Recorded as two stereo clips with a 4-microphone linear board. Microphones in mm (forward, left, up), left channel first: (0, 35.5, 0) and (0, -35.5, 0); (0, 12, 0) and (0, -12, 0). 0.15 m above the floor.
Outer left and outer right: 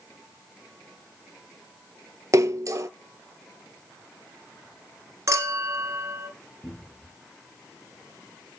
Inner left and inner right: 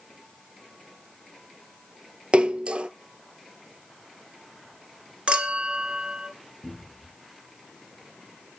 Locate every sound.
2.3 s a splash: 45° right (ahead or behind), 0.6 m
5.3 s a clink: 45° right (ahead or behind), 1.5 m
6.6 s a cupboard door: 10° left (ahead or behind), 5 m